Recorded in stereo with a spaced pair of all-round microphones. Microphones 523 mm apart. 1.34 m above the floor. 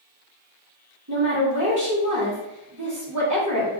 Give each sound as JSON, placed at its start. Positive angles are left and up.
{"t": 1.1, "sound": "a woman speaking", "side_deg": -35, "distance_m": 1.0}